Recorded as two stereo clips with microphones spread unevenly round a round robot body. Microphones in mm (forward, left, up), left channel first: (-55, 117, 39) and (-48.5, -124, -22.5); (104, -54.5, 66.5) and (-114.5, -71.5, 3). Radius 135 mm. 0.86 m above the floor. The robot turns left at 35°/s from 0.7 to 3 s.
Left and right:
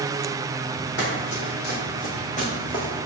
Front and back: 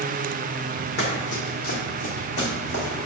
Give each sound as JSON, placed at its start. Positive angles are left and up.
{"t": 1.0, "sound": "running footsteps", "azimuth_deg": 60, "distance_m": 1.8}